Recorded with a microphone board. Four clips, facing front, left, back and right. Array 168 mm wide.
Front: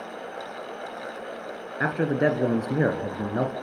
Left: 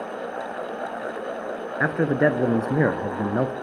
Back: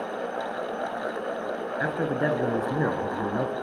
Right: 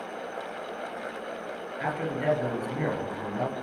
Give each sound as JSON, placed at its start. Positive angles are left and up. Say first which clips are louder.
{"t": 1.8, "sound": "a man speaking", "louder": "left 8 dB, front 4 dB", "azimuth_deg": 75, "distance_m": 2.0}